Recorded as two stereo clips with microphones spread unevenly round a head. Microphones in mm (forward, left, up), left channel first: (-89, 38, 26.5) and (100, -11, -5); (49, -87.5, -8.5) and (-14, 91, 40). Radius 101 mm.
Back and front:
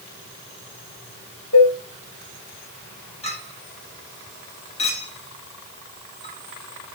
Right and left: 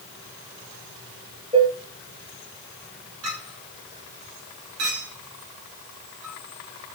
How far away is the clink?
About 3.5 m.